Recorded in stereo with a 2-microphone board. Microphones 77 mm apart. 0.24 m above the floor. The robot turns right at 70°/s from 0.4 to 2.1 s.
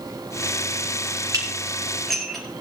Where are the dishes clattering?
50° right (ahead or behind), 3.5 m; by 2.4 s 5° left (ahead or behind), 3.5 m.